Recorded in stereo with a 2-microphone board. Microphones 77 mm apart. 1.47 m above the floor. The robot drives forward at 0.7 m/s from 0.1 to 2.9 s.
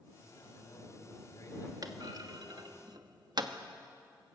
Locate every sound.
0.2 s a man speaking: 45° left (ahead or behind), 8.5 m; by 2.8 s 55° left (ahead or behind), 7 m
1.8 s a clunk: 50° right (ahead or behind), 1.5 m; by 3.5 s 60° right (ahead or behind), 1.3 m